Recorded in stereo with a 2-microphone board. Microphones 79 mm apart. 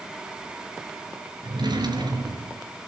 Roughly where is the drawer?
Right.